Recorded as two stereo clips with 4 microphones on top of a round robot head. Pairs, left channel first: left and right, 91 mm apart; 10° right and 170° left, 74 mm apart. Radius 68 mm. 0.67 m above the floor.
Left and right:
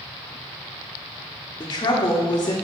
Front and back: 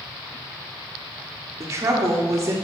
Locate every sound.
1.6 s a woman speaking: 130° left, 1.2 m